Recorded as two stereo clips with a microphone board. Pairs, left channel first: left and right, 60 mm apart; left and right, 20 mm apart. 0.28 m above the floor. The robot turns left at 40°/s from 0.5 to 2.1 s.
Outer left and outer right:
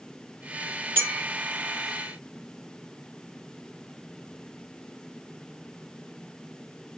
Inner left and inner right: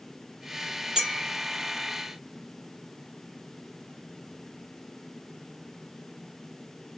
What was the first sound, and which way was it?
A clink, 30° right (ahead or behind).